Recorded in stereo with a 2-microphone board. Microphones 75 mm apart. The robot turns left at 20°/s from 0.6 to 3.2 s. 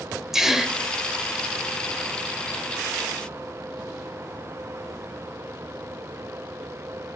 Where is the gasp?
5° right (ahead or behind), 0.6 m.